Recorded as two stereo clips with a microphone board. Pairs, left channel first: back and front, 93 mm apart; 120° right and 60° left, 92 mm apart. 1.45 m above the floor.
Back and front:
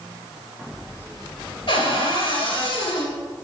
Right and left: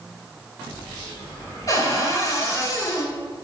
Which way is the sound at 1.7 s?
170° right.